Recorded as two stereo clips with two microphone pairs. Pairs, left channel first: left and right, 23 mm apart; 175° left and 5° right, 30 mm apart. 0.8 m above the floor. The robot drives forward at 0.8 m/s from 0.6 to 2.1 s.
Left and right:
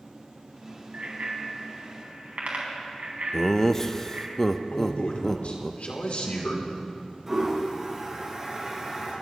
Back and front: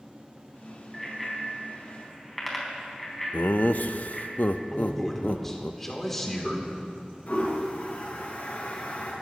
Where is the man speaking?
90° left, 3 m.